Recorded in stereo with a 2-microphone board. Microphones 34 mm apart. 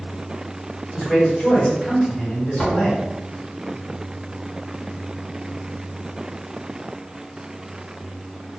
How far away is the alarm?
No alarm in this recording.